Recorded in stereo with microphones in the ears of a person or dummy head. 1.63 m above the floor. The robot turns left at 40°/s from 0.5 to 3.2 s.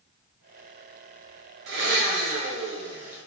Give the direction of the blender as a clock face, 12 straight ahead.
4 o'clock.